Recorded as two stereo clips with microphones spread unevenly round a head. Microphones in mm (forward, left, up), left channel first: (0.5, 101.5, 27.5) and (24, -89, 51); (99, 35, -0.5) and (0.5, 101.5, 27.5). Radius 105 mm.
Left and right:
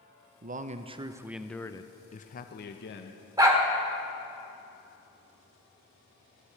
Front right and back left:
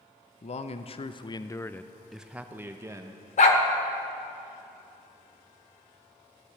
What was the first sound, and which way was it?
A man speaking, 35° right.